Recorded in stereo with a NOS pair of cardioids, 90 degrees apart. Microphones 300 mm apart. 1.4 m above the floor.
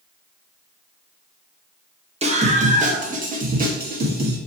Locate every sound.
2.2 s a scream: 20° right, 2.5 m; by 4.4 s 30° right, 3.5 m